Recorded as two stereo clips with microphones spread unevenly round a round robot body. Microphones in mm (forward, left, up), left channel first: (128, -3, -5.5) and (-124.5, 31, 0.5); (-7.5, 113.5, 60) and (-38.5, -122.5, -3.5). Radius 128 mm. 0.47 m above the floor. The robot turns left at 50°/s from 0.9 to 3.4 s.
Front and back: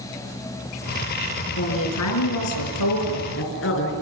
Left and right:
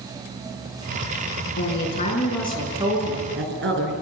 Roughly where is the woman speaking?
Ahead left.